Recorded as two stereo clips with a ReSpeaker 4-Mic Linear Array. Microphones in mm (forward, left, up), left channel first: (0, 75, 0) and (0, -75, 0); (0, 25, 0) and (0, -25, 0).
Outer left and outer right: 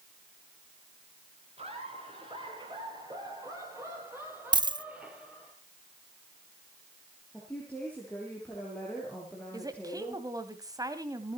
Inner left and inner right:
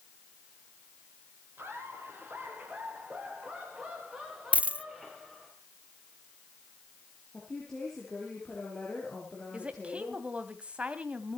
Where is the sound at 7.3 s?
10° left (ahead or behind), 6 m.